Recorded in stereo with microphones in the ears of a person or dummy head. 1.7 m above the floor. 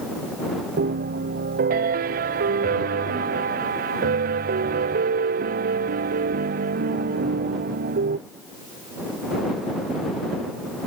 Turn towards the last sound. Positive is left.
turn(degrees=-50)  # may be behind; listen again after turning